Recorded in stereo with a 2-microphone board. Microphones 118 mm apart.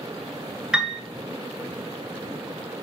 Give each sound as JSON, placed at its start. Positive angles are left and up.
{"t": 0.7, "sound": "a piano", "side_deg": -10, "distance_m": 1.0}